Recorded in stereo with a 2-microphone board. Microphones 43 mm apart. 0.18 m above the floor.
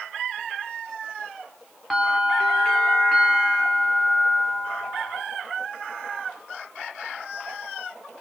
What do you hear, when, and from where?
1.9 s a bell: 10° left (ahead or behind), 5.5 m